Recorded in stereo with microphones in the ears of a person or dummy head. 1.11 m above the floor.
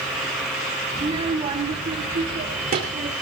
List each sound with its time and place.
0.9 s a child speaking: 20° right (ahead or behind), 1.8 m; by 3.1 s 40° right (ahead or behind), 3 m